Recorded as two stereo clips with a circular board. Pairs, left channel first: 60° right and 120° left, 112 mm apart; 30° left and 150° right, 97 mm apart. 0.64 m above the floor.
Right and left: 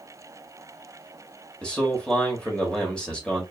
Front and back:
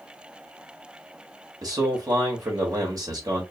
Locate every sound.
1.6 s a man speaking: 135° right, 1.0 m